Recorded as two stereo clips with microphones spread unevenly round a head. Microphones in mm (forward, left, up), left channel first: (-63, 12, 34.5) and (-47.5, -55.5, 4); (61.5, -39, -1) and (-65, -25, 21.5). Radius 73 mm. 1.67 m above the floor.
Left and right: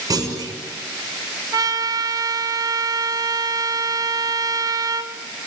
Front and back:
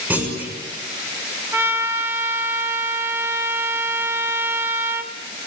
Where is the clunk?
110° right, 6.5 m.